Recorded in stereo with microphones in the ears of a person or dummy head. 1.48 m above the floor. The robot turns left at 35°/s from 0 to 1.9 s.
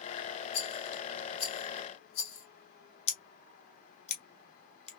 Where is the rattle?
65° left (ahead or behind), 2.5 m.